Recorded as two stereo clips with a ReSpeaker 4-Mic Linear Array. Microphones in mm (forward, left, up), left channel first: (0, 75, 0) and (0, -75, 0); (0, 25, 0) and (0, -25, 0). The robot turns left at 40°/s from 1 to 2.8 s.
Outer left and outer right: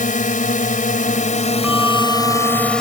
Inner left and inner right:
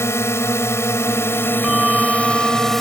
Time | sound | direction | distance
0.0 | a drone | 80° left | ?
1.6 | a bell | 10° right | ?